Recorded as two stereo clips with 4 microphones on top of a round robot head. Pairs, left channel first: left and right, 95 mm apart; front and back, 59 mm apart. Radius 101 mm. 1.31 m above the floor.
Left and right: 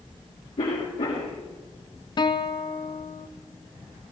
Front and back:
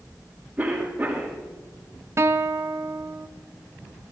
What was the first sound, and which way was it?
A cough, 110° left.